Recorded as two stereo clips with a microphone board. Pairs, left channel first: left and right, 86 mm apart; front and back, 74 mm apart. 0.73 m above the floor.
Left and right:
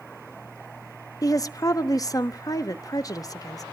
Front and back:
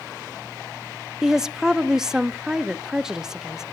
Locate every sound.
1.2 s a woman speaking: 100° left, 0.8 m